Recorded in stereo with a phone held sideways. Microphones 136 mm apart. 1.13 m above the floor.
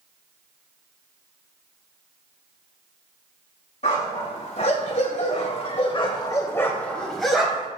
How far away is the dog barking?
About 2.5 m.